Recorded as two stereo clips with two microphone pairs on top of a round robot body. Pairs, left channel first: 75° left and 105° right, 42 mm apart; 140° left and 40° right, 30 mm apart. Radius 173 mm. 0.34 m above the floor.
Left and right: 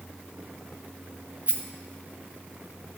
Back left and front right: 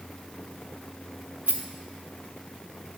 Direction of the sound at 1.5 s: 60° right.